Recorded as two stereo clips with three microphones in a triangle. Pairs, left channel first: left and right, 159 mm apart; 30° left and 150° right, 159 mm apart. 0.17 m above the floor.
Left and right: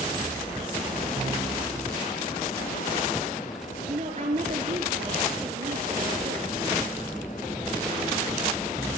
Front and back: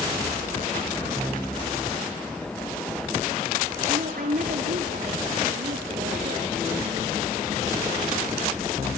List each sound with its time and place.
3.9 s a woman speaking: 130° right, 3 m